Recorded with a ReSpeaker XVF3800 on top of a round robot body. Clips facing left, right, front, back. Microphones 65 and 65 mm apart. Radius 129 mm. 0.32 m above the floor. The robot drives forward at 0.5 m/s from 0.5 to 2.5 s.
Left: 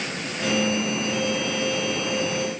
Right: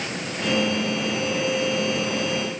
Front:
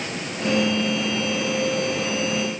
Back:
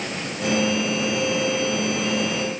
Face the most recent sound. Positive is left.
No sound to turn to.